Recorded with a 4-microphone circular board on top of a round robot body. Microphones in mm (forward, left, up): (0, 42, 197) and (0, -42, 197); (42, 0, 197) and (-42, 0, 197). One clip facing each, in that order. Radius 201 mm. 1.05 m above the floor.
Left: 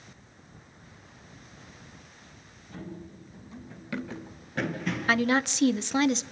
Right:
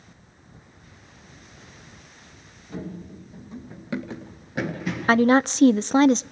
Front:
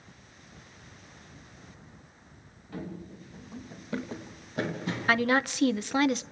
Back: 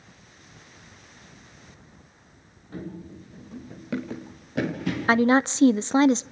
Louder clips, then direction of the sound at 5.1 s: Right 8 dB, back 6 dB; 125° right.